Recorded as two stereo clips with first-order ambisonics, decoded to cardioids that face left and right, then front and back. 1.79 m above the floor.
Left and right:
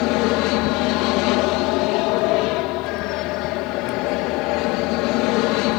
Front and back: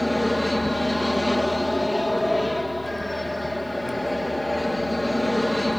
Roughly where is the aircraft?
Left.